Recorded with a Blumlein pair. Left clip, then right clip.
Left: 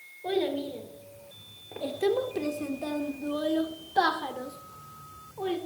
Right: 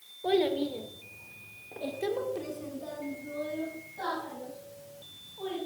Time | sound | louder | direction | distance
0.2 | a child speaking | right 2 dB | 10° right | 2.5 m